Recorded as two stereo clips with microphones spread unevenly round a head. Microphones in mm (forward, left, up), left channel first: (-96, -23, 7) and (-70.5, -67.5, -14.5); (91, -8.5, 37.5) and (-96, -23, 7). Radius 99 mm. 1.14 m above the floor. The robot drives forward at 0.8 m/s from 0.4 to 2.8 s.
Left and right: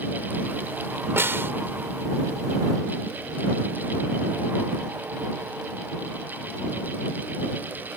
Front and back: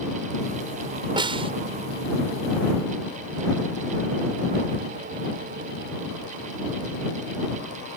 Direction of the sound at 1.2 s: 110° right.